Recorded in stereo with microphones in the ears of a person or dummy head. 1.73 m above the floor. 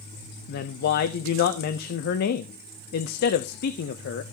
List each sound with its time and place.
0.5 s a woman speaking: 55° left (ahead or behind), 0.6 m